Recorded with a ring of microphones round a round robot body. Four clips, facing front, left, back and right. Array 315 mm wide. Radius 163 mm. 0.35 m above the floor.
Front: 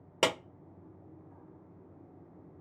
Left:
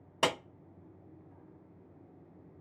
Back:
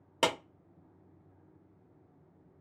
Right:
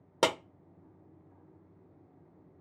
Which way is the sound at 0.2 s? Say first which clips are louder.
Right 3 dB, even; 65° right.